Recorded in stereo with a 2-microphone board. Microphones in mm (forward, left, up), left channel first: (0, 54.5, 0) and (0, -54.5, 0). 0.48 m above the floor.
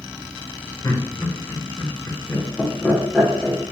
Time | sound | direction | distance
0.8 | laughter | 35° left (ahead or behind) | 1.5 m